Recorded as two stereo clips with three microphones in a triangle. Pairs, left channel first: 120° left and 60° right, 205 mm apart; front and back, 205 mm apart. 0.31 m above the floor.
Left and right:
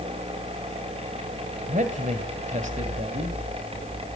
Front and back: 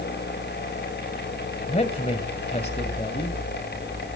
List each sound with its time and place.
1.7 s a man speaking: 40° right, 1.9 m